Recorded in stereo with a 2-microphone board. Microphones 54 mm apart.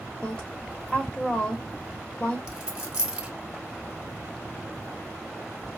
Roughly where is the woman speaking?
Left.